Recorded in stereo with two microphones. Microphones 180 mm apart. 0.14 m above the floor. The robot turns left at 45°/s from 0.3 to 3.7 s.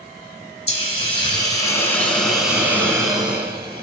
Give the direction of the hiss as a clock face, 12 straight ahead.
10 o'clock.